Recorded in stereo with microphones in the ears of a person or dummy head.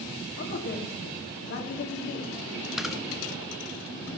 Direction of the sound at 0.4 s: 50° left (ahead or behind).